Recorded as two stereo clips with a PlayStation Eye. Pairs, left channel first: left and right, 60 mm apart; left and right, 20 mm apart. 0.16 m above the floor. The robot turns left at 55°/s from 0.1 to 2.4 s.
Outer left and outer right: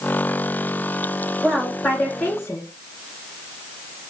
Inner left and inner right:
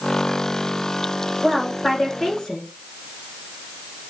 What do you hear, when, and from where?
1.4 s a woman speaking: 175° left, 2.5 m; by 2.7 s 120° left, 2.5 m